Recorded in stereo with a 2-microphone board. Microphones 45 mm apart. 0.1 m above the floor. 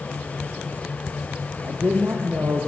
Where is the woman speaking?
70° right (ahead or behind), 3.5 m; by 2.7 s 75° right (ahead or behind), 4 m.